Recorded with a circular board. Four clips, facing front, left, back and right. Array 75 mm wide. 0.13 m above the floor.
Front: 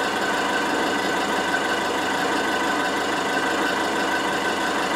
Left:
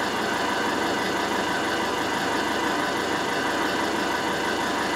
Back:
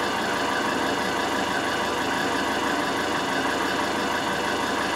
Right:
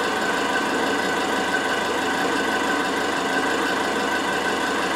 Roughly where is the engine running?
Ahead right.